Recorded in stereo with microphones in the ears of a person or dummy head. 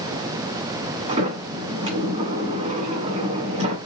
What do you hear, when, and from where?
1.1 s a sliding door: 35° right (ahead or behind), 1.8 m